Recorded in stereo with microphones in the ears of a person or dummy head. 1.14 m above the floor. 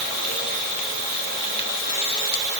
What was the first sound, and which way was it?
Only background noise.